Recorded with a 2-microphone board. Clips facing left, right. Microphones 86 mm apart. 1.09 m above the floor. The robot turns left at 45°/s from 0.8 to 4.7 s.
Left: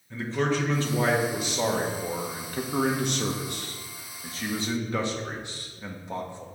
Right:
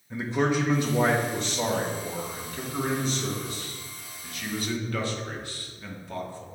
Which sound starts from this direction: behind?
A man speaking, at 0.1 s.